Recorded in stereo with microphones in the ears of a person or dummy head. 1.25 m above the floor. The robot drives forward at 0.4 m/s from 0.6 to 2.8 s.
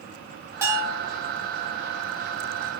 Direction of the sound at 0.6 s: 15° right (ahead or behind).